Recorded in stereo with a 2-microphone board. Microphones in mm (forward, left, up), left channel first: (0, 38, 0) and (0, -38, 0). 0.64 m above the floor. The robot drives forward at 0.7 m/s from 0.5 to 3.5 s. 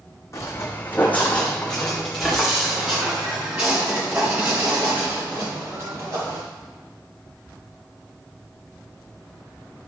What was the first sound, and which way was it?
Footsteps, 35° left (ahead or behind).